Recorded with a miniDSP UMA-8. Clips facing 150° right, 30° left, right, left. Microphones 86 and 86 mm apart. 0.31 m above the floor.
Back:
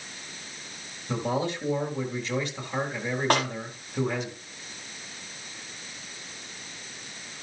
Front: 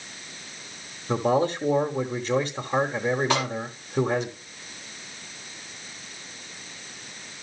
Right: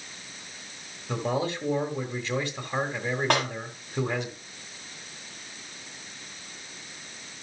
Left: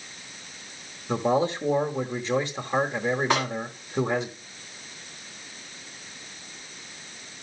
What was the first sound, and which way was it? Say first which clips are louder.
A man speaking: front 6 dB, left 5 dB; 30° left.